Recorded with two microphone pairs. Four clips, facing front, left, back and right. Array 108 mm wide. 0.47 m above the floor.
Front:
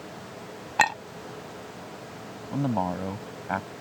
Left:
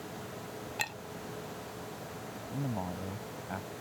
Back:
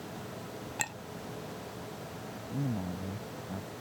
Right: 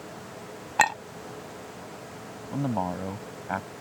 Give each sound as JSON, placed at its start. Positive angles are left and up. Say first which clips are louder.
{"t": 0.8, "sound": "a clink", "louder": "right 19 dB, front 19 dB", "azimuth_deg": -45}
{"t": 2.5, "sound": "a man speaking", "louder": "right 9 dB, front 9 dB", "azimuth_deg": -20}